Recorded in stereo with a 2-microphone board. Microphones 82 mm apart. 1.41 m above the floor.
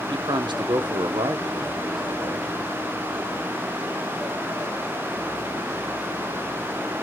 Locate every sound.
0.1 s a man speaking: 75° right (ahead or behind), 0.9 m